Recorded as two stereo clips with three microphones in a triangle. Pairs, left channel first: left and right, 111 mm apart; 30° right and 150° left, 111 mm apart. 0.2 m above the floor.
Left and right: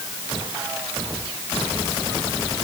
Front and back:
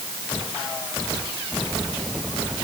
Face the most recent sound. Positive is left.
No sound to turn to.